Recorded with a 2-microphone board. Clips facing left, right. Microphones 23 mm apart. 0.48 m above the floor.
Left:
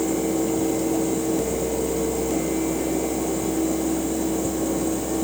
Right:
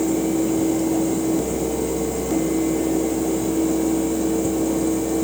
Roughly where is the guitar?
No guitar in this recording.